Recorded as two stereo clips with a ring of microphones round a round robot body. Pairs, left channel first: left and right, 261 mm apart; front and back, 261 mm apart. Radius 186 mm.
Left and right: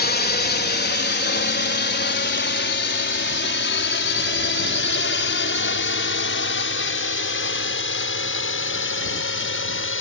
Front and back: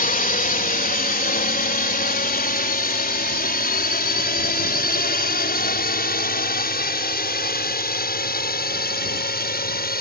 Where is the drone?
50° left; by 10.0 s 55° left.